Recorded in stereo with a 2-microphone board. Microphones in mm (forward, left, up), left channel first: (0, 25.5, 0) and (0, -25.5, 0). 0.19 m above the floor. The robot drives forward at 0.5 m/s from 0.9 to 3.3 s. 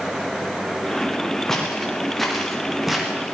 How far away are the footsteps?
About 5.5 m.